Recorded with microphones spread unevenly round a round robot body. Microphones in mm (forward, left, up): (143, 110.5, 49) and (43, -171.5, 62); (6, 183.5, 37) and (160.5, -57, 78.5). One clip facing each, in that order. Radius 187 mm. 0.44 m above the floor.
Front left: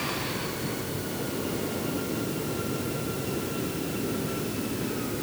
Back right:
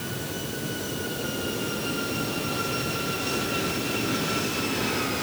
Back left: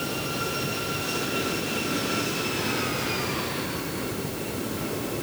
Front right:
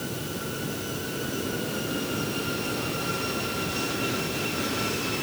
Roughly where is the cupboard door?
No cupboard door in this recording.